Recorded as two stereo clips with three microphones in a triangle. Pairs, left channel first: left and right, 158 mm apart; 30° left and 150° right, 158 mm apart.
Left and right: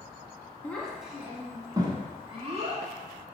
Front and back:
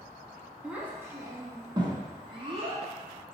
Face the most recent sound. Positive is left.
turn(degrees=-110)